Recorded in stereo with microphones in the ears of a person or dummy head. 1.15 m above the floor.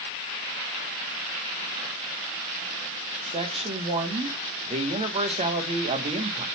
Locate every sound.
3.3 s a man speaking: 30° right (ahead or behind), 1.3 m